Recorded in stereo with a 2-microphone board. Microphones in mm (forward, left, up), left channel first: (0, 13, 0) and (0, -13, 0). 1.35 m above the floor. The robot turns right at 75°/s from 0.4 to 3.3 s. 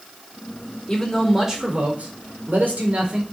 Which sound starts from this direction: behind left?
A man speaking, at 0.9 s.